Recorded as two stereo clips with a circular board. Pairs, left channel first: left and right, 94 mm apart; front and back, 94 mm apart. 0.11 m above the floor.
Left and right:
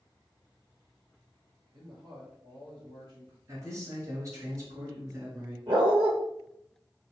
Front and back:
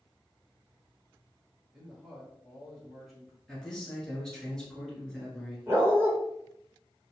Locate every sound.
1.7 s a man speaking: 95° right, 2.0 m
3.5 s a man speaking: 80° right, 1.4 m
5.7 s a dog barking: 120° right, 1.3 m